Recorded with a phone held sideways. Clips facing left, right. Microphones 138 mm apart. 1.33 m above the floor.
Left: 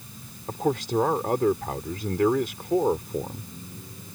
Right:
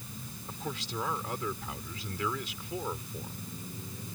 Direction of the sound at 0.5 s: 60° left (ahead or behind).